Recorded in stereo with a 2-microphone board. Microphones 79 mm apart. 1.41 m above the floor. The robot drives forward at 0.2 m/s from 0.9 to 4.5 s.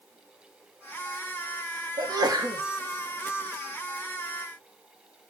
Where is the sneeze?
55° right (ahead or behind), 2 m.